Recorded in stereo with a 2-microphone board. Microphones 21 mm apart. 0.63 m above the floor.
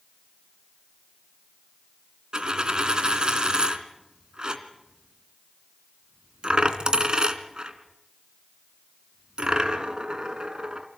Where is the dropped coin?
40° right (ahead or behind), 2 m.